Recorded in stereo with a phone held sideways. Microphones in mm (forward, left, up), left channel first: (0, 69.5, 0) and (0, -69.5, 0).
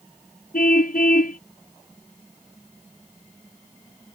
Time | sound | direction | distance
0.5 | a car horn | 70° left (ahead or behind) | ?